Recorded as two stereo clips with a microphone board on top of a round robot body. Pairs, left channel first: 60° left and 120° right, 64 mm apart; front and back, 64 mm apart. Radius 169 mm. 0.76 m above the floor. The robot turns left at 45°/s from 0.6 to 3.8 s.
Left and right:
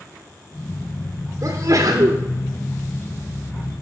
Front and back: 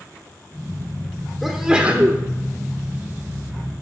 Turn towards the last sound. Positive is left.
turn(degrees=165)